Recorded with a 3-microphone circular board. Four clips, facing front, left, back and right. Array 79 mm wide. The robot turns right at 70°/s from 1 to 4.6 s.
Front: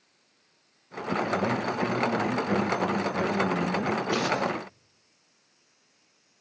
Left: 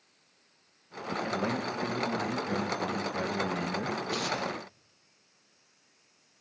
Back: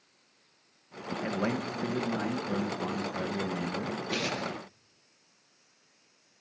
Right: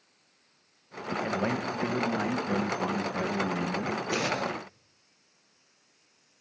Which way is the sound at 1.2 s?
120° right.